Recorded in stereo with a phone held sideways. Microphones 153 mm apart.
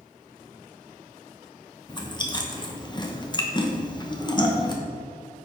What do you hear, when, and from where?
1.9 s chewing: 30° left (ahead or behind), 1.1 m